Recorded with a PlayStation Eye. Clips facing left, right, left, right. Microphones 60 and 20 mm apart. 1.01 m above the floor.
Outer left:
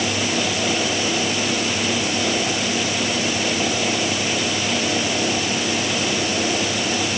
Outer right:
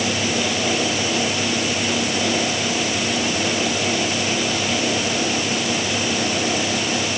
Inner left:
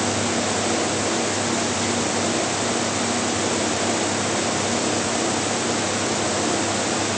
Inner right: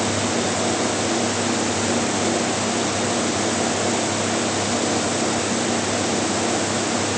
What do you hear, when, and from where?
Only background noise.